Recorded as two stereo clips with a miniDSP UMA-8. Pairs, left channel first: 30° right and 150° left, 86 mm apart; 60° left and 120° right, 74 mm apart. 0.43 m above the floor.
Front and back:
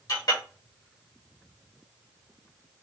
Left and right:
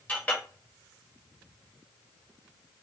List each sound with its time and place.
0.1 s a clink: straight ahead, 1.1 m